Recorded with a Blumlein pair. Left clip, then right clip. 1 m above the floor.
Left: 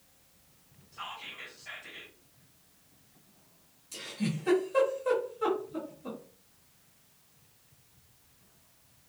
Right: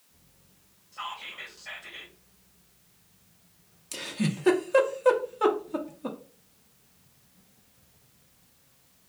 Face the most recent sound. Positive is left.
turn(degrees=-55)